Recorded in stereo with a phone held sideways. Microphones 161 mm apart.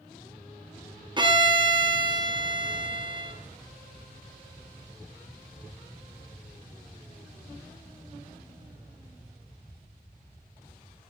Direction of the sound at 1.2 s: 30° right (ahead or behind).